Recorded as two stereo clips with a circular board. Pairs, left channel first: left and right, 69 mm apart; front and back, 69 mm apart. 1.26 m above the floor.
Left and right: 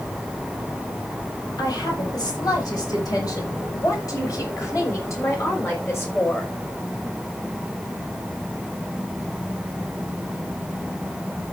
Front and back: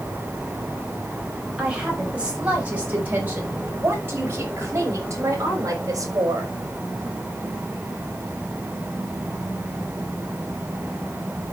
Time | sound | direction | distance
1.6 | a woman speaking | 105° left | 5 m